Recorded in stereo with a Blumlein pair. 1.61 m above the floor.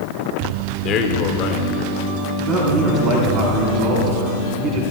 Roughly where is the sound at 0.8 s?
Ahead left.